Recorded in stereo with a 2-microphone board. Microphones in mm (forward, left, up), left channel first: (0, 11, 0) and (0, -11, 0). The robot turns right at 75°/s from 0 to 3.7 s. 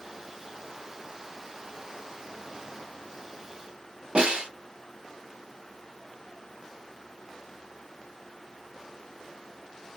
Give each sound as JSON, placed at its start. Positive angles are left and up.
{"t": 4.2, "sound": "a snare drum", "side_deg": -60, "distance_m": 1.3}